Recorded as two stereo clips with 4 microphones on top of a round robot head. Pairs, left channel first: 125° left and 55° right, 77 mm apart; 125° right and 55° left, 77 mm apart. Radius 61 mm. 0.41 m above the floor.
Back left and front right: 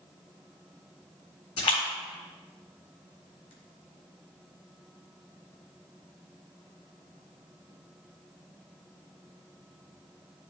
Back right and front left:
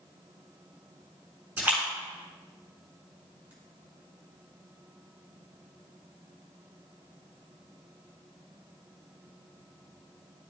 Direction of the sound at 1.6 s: 130° left.